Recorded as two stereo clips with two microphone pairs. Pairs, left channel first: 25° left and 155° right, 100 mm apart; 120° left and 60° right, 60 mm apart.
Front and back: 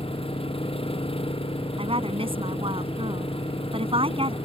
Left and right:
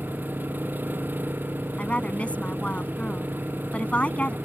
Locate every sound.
0.0 s an engine running: straight ahead
1.8 s a woman speaking: 170° right